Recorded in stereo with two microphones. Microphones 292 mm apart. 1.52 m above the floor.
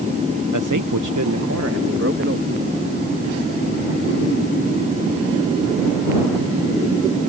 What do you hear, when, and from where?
0.5 s a man speaking: 70° right (ahead or behind); by 2.6 s 35° right (ahead or behind)